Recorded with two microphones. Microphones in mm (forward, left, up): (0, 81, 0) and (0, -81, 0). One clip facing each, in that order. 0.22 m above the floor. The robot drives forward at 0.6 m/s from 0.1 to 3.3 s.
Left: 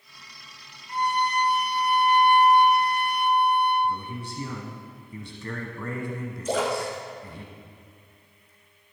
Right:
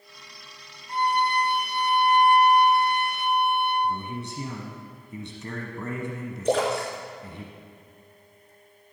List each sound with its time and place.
0.9 s a violin: 30° right (ahead or behind), 1.8 m; by 3.7 s 25° right (ahead or behind), 2 m
3.8 s a man speaking: 25° right (ahead or behind), 1.3 m
6.5 s a splash: 60° right (ahead or behind), 2.5 m